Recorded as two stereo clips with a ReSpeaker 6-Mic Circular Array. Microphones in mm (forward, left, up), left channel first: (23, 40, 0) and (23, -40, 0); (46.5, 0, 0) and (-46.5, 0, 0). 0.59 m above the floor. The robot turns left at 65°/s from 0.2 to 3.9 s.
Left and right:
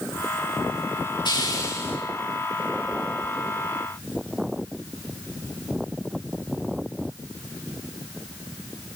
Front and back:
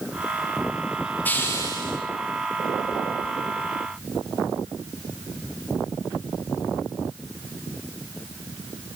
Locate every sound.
1.2 s a hiss: 70° left, 7.5 m; by 2.0 s 25° left, 7.5 m